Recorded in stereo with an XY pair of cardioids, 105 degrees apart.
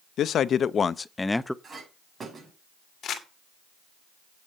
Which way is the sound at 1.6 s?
35° right.